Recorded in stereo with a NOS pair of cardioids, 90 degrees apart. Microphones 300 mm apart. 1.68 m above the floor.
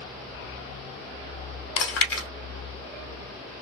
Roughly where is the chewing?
Ahead left.